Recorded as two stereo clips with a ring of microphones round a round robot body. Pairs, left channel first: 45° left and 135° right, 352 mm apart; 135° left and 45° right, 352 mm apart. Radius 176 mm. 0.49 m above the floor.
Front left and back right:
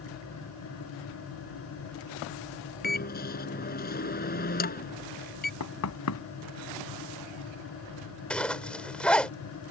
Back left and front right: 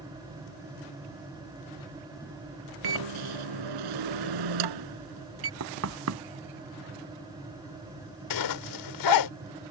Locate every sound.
2.8 s a microwave: 20° right
5.6 s knocking: straight ahead
8.3 s a zipper: 130° left